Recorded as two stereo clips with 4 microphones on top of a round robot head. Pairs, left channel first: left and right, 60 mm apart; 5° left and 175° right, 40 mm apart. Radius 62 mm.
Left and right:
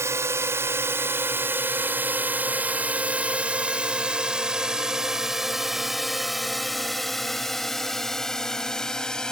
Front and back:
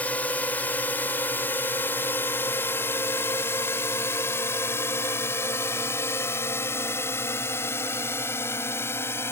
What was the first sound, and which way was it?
A drone, 55° right.